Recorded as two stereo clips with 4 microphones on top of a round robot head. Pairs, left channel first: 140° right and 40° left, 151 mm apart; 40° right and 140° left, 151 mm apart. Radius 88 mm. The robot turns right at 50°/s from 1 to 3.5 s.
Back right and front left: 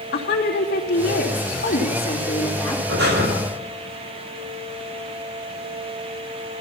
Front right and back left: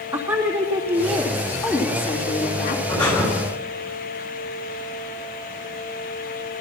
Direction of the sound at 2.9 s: 35° left.